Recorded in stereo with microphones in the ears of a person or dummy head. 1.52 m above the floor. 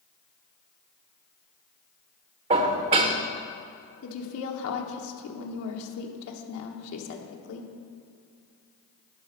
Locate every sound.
2.5 s dishes clattering: 35° right (ahead or behind), 0.8 m
4.0 s a woman speaking: 80° left, 1.3 m